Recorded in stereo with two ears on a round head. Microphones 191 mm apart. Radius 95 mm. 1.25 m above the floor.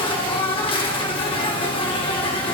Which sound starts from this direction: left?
An insect, at 0.0 s.